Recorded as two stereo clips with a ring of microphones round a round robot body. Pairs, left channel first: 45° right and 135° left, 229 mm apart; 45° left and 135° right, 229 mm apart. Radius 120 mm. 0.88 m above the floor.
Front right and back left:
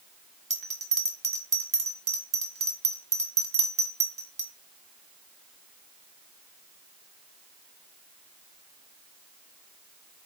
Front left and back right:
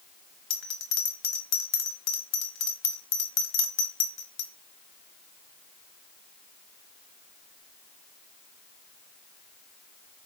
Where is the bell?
75° left, 1.1 m.